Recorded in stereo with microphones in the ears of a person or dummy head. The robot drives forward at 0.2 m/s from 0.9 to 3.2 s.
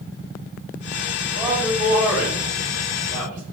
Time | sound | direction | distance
1.4 | a man speaking | 25° right (ahead or behind) | 1.9 m